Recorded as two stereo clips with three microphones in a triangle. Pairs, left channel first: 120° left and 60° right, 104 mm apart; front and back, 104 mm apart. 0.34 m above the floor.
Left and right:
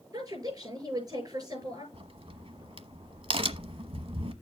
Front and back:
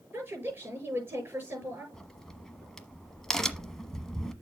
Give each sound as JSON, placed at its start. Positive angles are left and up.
{"t": 0.1, "sound": "a woman speaking", "azimuth_deg": -115, "distance_m": 6.5}
{"t": 1.9, "sound": "a crack", "azimuth_deg": -85, "distance_m": 1.0}